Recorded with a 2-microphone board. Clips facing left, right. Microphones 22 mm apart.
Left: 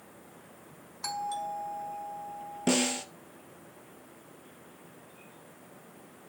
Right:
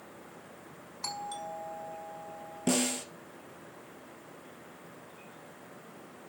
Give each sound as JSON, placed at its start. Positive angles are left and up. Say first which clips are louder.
{"t": 1.0, "sound": "a doorbell", "louder": "left 4 dB", "side_deg": -5, "distance_m": 4.5}
{"t": 2.7, "sound": "a snare drum", "louder": "left 2 dB", "side_deg": 15, "distance_m": 1.5}